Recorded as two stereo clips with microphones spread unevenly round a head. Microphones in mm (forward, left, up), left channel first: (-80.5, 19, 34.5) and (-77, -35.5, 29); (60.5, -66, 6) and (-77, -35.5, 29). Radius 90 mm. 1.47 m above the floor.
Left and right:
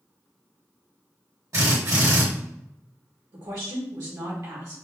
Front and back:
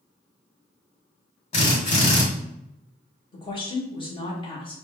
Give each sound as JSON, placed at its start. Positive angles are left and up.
{"t": 1.5, "sound": "a drill", "azimuth_deg": -50, "distance_m": 1.9}
{"t": 3.3, "sound": "a woman speaking", "azimuth_deg": -70, "distance_m": 1.4}